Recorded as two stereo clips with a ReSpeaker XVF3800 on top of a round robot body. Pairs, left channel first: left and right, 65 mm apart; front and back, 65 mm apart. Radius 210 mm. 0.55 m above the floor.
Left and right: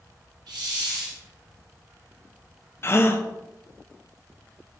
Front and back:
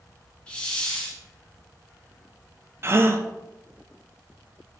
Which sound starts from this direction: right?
A hiss, at 0.5 s.